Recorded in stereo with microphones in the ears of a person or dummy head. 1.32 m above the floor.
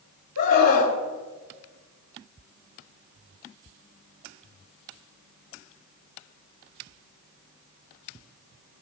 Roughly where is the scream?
Left.